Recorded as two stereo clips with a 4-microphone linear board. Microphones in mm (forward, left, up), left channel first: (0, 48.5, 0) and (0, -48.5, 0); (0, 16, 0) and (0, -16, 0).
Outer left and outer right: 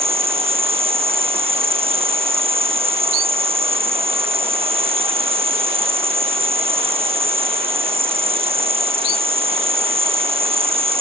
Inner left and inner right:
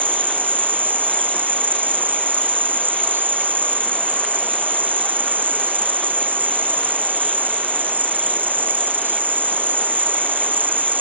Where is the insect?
85° right, 1.4 m.